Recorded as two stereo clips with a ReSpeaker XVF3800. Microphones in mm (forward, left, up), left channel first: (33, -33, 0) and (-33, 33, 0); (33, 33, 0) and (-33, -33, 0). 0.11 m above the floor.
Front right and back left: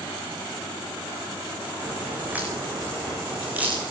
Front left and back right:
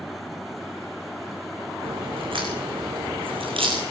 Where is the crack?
150° right, 7.5 m.